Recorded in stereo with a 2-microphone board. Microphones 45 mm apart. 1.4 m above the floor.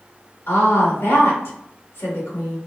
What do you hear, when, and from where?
0.5 s a woman speaking: 55° left (ahead or behind), 1.8 m